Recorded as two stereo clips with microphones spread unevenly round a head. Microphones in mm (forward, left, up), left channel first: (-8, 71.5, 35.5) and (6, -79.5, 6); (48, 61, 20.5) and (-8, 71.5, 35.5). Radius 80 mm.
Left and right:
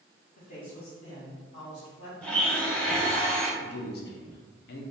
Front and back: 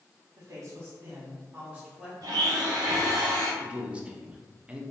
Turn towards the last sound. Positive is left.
turn(degrees=90)